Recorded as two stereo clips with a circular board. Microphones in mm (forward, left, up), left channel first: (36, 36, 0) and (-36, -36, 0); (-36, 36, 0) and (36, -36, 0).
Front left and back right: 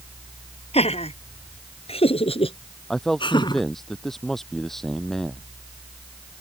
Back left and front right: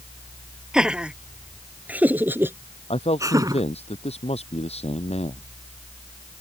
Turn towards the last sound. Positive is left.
turn(degrees=130)